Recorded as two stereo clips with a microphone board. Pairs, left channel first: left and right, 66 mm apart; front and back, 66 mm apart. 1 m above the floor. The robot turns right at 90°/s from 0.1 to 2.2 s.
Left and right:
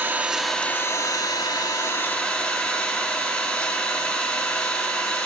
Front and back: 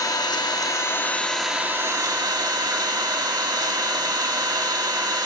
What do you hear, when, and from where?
0.0 s an engine running: 25° right, 0.9 m; by 5.3 s 165° left, 0.9 m